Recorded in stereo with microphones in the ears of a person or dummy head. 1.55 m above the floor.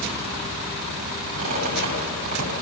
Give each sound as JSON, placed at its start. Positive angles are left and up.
{"t": 1.4, "sound": "a squeak", "side_deg": -45, "distance_m": 7.5}